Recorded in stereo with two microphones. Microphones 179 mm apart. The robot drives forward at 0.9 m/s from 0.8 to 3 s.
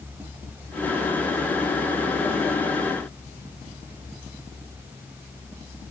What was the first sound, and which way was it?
Only background noise.